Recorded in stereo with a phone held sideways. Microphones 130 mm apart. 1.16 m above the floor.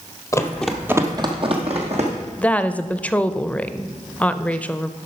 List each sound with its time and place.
0.3 s running footsteps: 25° left (ahead or behind), 1.2 m; by 2.1 s 55° right (ahead or behind), 2.5 m
2.4 s a woman speaking: 10° left (ahead or behind), 0.6 m